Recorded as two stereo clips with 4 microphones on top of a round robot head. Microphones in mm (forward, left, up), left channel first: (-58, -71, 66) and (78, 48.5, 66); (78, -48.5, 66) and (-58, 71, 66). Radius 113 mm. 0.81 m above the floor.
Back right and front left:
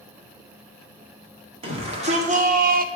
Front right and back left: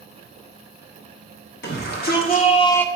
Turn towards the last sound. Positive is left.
turn(degrees=45)